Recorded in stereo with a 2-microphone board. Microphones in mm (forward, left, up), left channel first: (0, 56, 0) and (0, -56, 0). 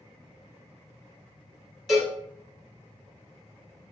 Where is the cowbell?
Centre (ahead or behind), 1.3 m.